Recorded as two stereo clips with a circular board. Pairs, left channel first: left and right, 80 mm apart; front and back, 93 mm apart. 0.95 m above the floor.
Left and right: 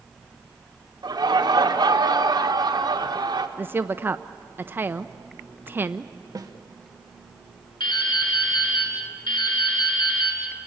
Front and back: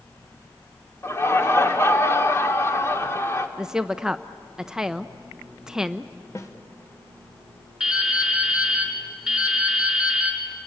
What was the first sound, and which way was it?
Laughter, 60° right.